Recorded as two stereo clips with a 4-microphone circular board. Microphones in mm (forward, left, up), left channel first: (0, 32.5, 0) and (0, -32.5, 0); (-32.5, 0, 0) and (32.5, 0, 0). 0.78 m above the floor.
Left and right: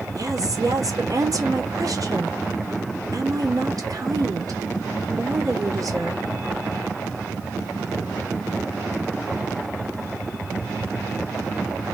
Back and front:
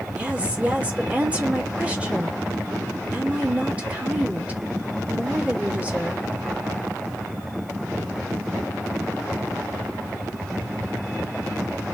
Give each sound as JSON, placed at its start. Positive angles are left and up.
{"t": 0.1, "sound": "a woman speaking", "azimuth_deg": -70, "distance_m": 2.5}